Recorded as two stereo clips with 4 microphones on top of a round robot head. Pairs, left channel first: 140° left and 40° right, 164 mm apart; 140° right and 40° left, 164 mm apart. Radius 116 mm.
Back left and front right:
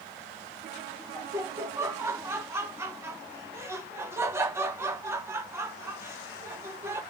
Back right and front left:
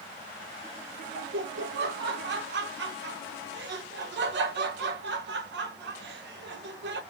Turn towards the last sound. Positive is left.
turn(degrees=35)